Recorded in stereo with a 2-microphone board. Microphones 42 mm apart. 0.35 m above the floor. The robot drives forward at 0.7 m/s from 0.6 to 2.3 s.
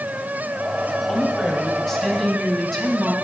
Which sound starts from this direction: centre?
A woman speaking, at 1.1 s.